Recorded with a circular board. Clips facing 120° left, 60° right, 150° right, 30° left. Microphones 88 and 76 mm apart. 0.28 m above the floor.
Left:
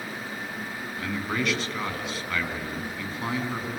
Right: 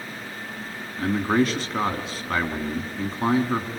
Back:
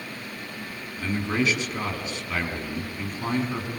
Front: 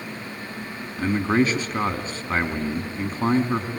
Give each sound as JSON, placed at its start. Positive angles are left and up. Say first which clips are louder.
{"t": 1.0, "sound": "a man speaking", "louder": "right 8 dB, front 5 dB", "azimuth_deg": -15, "distance_m": 2.5}